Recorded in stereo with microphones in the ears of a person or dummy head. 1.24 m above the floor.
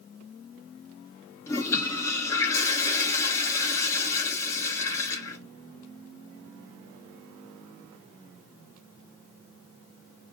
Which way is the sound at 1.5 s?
15° left (ahead or behind).